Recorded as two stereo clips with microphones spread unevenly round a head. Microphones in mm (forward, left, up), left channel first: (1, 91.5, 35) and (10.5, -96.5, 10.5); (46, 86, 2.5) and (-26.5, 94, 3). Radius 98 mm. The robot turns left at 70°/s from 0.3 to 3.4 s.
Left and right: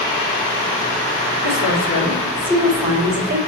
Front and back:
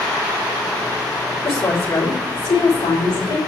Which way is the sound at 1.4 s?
85° left.